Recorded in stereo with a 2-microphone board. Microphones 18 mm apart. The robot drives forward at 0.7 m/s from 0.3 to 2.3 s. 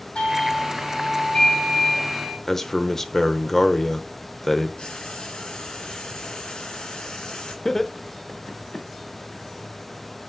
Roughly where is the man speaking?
Centre.